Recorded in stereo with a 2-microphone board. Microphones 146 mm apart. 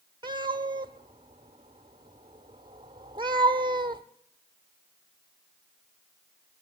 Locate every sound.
0.2 s a cat meowing: 30° right (ahead or behind), 1.2 m